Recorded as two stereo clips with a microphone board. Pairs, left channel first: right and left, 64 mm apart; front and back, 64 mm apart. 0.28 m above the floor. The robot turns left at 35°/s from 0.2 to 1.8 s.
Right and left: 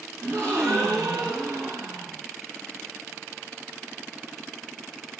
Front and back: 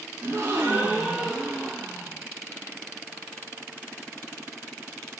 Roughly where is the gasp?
Behind left.